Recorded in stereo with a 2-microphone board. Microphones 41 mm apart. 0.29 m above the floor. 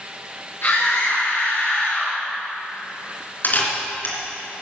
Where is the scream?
60° left (ahead or behind), 5 m; by 2.2 s 55° left (ahead or behind), 4 m.